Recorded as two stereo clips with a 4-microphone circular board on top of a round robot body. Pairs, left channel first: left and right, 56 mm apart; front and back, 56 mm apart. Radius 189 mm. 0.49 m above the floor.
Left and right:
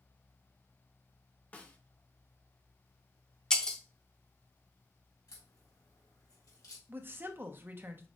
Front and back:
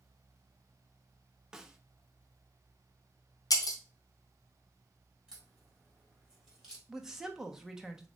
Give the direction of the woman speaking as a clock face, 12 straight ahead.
4 o'clock.